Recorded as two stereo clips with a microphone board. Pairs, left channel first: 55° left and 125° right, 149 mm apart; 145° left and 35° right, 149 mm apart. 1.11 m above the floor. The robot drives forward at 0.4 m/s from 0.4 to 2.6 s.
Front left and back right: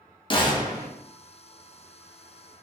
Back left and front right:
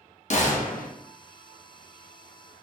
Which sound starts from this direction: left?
A gunshot, at 0.3 s.